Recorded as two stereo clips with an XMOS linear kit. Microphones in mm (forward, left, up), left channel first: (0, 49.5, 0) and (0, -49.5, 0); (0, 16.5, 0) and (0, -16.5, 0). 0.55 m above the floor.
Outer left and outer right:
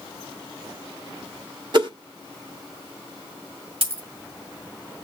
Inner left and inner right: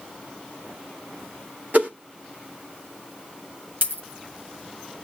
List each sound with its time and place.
1.7 s a whoosh: 50° right (ahead or behind), 1.4 m
3.8 s a dropped coin: 75° right (ahead or behind), 1.5 m